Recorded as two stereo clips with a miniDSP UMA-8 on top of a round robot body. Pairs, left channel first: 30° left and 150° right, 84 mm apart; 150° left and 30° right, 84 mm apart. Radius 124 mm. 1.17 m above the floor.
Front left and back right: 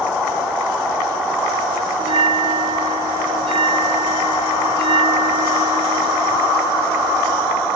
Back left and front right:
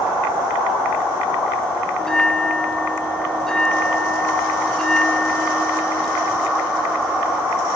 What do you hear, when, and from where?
2.0 s a bell: 125° right, 0.5 m